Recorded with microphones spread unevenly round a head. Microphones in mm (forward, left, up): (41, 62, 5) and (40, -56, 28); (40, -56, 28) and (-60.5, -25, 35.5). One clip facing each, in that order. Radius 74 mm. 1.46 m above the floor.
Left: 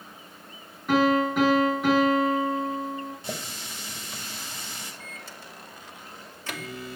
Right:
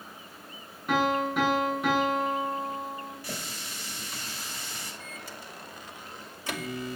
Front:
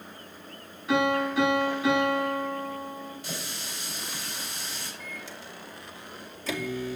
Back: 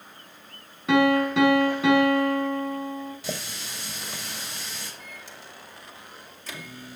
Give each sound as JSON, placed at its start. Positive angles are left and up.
{"t": 0.9, "sound": "a piano", "azimuth_deg": 180, "distance_m": 7.0}
{"t": 3.2, "sound": "a running tap", "azimuth_deg": 165, "distance_m": 4.5}
{"t": 5.0, "sound": "a microwave", "azimuth_deg": -15, "distance_m": 3.0}